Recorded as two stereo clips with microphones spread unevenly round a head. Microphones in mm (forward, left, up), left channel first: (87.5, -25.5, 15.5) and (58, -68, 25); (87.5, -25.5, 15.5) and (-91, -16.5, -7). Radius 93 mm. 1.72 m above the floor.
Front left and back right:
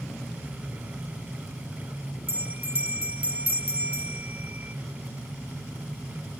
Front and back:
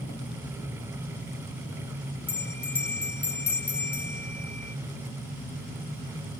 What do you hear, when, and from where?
2.3 s a bell: 80° right